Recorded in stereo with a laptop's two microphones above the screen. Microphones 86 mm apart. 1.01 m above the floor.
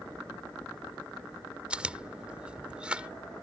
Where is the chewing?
10° right (ahead or behind).